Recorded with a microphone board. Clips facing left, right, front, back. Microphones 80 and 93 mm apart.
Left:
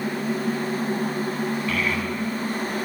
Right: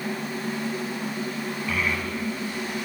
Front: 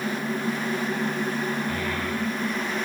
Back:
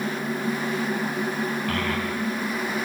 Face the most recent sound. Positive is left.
turn(degrees=-170)